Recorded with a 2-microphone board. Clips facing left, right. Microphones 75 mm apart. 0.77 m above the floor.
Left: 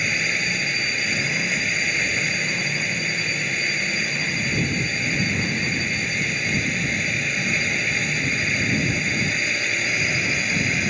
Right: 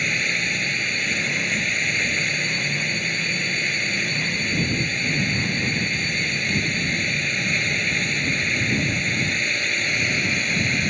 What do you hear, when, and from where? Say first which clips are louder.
0.0 s a drone: even; centre (ahead or behind)